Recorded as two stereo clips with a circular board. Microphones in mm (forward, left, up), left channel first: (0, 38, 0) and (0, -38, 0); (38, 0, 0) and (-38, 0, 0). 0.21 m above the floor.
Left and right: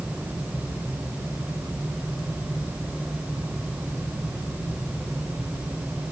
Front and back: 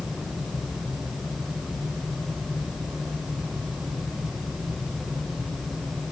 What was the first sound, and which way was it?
Only background noise.